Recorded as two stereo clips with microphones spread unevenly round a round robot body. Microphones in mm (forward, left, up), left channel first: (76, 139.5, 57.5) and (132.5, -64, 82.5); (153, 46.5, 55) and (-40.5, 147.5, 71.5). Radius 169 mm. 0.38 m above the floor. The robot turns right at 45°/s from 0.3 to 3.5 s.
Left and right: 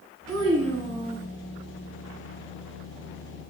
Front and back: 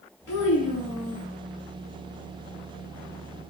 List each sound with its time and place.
0.3 s a child speaking: 75° right, 2 m; by 1.3 s 30° right, 2 m